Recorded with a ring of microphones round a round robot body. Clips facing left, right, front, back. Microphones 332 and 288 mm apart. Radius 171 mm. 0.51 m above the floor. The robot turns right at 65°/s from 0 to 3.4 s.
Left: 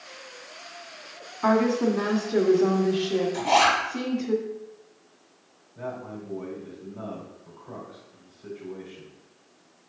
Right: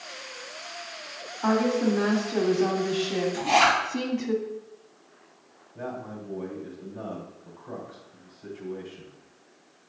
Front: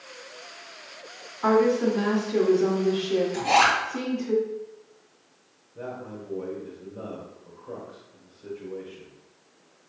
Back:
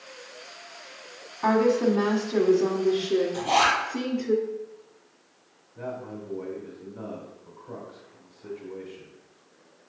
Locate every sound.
1.4 s a woman speaking: 150° left, 1.6 m; by 4.3 s 80° right, 1.6 m
3.3 s a zipper: 20° right, 3 m; by 3.8 s 15° right, 3 m
5.8 s a man speaking: 70° right, 1.7 m